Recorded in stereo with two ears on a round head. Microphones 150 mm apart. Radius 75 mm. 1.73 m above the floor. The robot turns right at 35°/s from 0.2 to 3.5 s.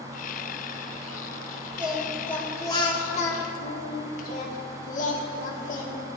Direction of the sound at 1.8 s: 10° right.